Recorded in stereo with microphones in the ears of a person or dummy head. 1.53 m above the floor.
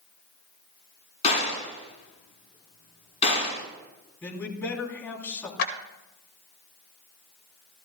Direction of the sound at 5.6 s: 65° left (ahead or behind).